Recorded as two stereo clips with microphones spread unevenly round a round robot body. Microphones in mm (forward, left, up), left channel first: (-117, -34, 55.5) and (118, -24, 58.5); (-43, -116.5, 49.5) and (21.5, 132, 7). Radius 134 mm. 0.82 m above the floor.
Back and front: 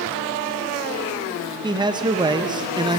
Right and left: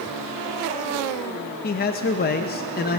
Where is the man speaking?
60° right, 0.6 m.